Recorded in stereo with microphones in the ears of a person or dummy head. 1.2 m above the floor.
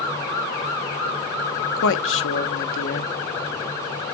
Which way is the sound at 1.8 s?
70° left (ahead or behind).